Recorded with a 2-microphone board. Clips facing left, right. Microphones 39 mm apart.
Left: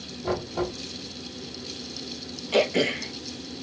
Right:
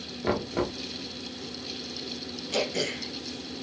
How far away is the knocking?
About 1.2 m.